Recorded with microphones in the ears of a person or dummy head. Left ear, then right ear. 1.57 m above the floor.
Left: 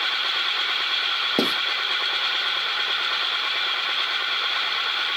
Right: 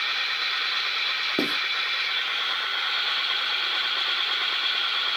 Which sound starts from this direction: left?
Writing, at 1.4 s.